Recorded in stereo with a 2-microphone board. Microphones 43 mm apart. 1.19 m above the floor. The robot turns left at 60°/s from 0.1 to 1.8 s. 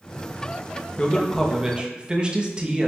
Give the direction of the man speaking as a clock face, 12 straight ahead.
11 o'clock.